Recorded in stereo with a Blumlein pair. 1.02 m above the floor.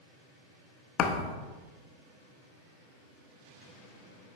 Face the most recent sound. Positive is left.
turn(degrees=30)